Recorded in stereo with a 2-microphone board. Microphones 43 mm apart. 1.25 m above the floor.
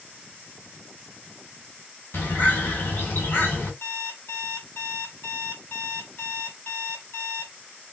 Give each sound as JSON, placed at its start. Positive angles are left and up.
{"t": 2.1, "sound": "a bird", "side_deg": 55, "distance_m": 1.8}
{"t": 3.8, "sound": "an alarm clock", "side_deg": 60, "distance_m": 1.6}